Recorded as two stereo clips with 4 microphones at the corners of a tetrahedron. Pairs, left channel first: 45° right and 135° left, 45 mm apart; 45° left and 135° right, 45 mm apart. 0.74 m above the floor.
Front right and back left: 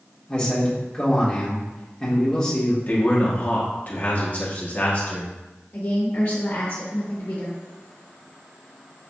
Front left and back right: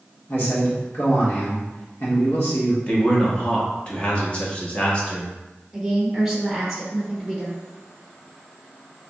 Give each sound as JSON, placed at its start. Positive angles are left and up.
{"t": 0.3, "sound": "a man speaking", "azimuth_deg": 25, "distance_m": 1.7}
{"t": 2.9, "sound": "a man speaking", "azimuth_deg": -10, "distance_m": 1.2}
{"t": 5.7, "sound": "a woman speaking", "azimuth_deg": -55, "distance_m": 1.0}